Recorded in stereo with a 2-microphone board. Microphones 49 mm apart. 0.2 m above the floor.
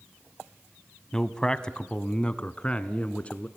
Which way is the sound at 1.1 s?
10° left (ahead or behind).